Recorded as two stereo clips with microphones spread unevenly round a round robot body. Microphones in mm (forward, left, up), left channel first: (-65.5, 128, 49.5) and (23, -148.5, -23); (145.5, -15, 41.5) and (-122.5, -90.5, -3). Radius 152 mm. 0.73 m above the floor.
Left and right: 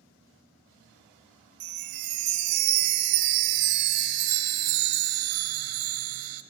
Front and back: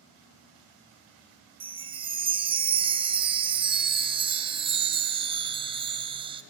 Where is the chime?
90° right, 0.8 m.